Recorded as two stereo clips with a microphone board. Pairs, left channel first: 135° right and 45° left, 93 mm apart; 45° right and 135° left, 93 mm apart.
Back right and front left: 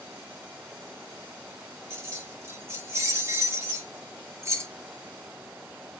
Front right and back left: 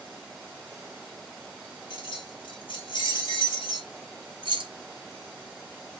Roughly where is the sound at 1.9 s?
Ahead.